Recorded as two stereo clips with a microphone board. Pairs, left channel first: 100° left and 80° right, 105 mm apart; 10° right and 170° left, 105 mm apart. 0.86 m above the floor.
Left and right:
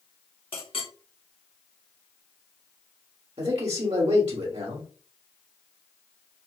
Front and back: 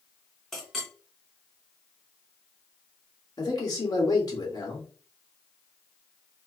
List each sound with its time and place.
0.5 s a clink: 75° left, 1.0 m
3.4 s a man speaking: 60° right, 1.7 m